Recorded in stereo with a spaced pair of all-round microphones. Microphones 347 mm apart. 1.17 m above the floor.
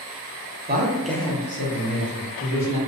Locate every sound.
0.7 s a man speaking: 30° right (ahead or behind), 0.6 m; by 2.8 s 70° left (ahead or behind), 1.4 m